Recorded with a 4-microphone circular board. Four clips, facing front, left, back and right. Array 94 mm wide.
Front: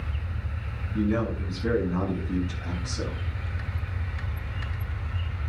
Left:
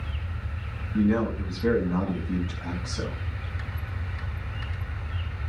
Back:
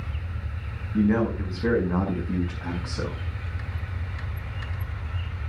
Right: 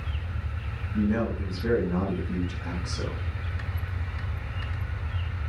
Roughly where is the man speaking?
Behind.